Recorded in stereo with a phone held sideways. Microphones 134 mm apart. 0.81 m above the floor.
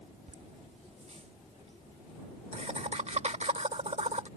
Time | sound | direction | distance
0.3 | laughter | 55° right (ahead or behind) | ?